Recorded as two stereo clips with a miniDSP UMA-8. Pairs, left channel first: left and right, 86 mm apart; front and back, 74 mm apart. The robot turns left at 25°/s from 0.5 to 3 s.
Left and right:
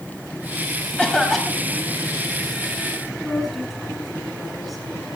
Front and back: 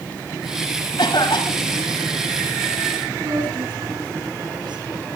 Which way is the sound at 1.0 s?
10° left.